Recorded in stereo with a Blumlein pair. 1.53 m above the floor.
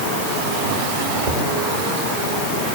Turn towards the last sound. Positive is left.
turn(degrees=-50)